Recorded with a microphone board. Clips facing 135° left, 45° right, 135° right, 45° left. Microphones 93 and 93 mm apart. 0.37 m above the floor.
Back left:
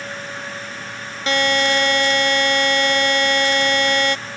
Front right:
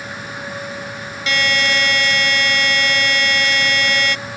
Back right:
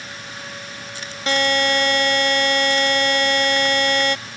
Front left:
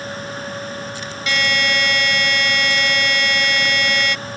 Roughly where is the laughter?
No laughter in this recording.